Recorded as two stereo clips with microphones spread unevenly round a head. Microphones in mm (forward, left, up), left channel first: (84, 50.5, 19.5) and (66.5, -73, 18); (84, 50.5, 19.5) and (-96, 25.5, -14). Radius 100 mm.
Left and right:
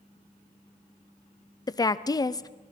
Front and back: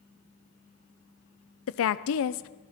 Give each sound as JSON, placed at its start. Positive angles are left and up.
{"t": 1.7, "sound": "a woman speaking", "azimuth_deg": 15, "distance_m": 0.5}